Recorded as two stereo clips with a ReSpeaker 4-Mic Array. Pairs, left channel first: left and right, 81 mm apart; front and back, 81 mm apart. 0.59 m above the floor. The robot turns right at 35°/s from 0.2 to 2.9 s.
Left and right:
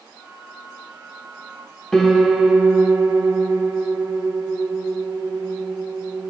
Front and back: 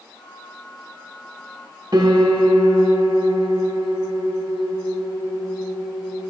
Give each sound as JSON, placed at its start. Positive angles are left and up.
{"t": 1.9, "sound": "a piano", "azimuth_deg": 170, "distance_m": 1.1}